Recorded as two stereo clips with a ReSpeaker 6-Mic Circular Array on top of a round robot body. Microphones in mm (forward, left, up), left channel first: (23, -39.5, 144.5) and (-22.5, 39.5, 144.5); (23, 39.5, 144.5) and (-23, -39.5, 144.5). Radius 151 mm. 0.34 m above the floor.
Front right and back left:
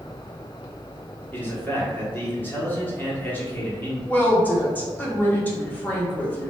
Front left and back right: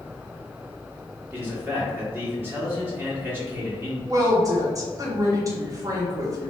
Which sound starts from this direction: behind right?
A woman speaking, at 4.0 s.